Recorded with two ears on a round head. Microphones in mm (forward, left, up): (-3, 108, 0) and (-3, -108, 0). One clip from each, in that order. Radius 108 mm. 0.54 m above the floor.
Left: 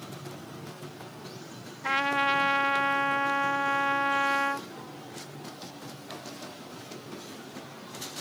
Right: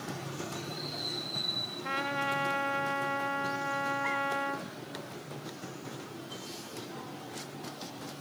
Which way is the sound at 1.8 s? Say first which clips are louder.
Left 8 dB; 35° left (ahead or behind).